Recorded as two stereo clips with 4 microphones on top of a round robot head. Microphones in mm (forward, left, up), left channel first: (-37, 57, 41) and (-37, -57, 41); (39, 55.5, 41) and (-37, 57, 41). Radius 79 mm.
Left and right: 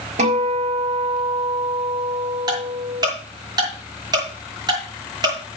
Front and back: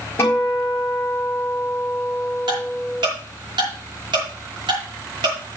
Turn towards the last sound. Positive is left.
turn(degrees=-140)